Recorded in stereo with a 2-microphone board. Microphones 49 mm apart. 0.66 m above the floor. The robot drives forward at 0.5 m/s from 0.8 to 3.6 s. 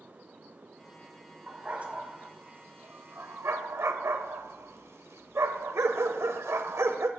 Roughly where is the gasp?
No gasp in this recording.